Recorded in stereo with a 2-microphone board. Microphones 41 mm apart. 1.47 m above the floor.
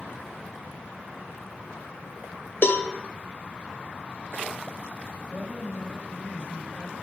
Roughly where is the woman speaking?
Left.